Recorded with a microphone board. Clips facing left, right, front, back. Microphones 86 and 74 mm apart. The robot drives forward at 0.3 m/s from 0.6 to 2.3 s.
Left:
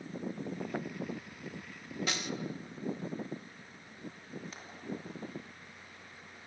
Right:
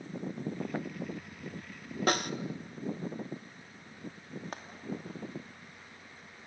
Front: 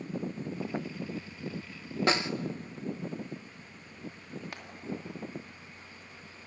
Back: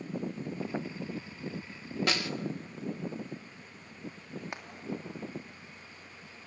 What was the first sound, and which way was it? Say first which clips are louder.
A snare drum: right 11 dB, front 5 dB; 60° right.